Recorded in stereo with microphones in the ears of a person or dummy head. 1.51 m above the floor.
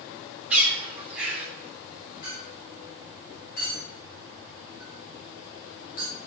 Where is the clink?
45° left (ahead or behind), 5 m.